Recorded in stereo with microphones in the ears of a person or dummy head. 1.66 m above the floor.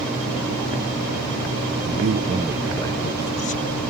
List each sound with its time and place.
1.9 s a man speaking: 60° right (ahead or behind); by 3.8 s 40° left (ahead or behind)